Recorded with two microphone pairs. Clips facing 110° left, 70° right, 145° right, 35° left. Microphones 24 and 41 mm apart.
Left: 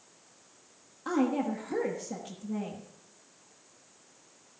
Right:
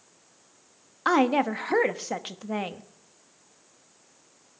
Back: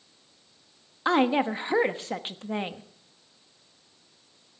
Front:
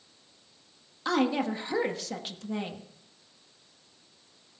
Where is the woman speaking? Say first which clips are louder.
Right 7 dB, back 4 dB; 90° right, 1.0 m.